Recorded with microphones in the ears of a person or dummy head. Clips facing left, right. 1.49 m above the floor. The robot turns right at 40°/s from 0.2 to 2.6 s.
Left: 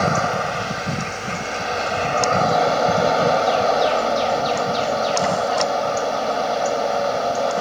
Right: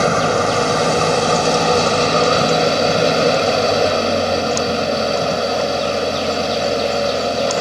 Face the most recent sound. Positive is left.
turn(degrees=-35)